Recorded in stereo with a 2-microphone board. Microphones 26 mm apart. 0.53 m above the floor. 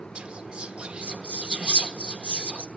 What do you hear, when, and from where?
0.1 s whispering: 50° right (ahead or behind), 1.1 m